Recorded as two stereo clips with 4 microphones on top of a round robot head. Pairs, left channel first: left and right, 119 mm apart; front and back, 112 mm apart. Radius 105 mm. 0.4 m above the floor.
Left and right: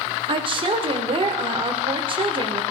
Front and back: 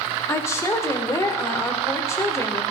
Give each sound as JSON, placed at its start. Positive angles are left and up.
{"t": 0.3, "sound": "a woman speaking", "azimuth_deg": -60, "distance_m": 1.7}